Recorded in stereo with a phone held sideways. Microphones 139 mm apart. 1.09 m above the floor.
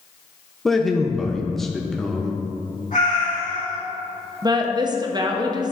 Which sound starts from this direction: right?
A woman speaking, at 4.4 s.